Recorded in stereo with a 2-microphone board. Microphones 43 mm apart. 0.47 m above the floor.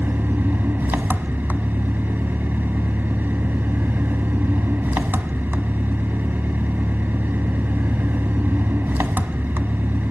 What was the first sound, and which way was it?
An engine running, 50° right (ahead or behind).